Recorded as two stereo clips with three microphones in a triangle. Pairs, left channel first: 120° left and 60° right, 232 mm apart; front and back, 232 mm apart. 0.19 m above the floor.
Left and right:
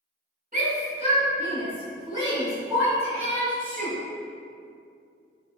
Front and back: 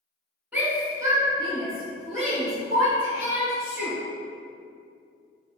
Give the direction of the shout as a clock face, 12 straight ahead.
3 o'clock.